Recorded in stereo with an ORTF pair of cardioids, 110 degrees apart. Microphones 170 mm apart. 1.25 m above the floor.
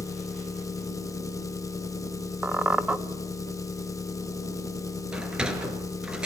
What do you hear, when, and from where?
0.0 s an engine running: 20° left, 1.4 m
2.4 s a squeak: 10° right, 1.4 m
5.1 s a sliding door: 5° right, 4 m